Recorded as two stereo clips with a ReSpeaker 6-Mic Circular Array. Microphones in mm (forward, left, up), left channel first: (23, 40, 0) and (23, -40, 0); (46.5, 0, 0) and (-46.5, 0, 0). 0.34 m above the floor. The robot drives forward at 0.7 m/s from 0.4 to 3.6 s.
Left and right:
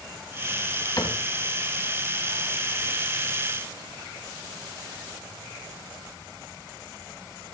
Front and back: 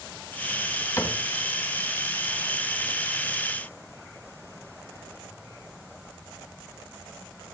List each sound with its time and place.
1.0 s a cupboard door: 55° left, 2.5 m; by 1.2 s 60° left, 2.5 m